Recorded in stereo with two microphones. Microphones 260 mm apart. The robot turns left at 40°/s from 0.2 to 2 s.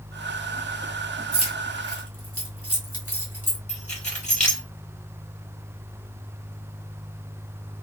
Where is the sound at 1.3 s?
60° right (ahead or behind), 1.3 m; by 3.6 s 55° right (ahead or behind), 1.3 m.